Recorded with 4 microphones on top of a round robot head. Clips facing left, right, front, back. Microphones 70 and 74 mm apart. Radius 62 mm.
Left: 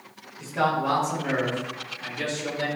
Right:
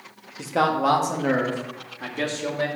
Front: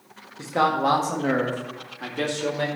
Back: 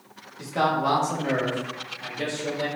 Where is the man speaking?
70° right, 1.8 m; by 2.7 s 35° right, 2 m.